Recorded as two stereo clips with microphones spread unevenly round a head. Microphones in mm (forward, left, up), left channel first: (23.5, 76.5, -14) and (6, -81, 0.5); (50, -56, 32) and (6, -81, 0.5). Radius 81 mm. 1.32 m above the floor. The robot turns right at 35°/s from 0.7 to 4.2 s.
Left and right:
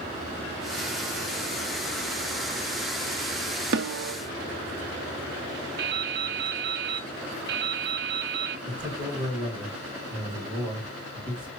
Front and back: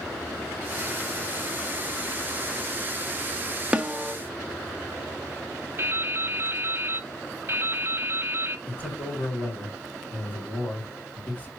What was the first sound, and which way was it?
A snare drum, 80° right.